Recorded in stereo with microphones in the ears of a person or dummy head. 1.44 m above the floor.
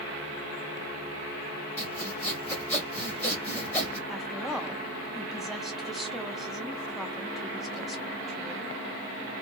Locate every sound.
1.8 s sawing: 15° left (ahead or behind), 1.7 m
4.1 s a woman speaking: centre (ahead or behind), 0.6 m